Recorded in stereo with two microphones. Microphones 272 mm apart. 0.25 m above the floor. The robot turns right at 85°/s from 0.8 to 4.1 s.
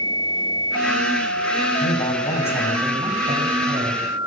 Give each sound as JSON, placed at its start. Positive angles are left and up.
{"t": 1.8, "sound": "a man speaking", "azimuth_deg": 110, "distance_m": 1.9}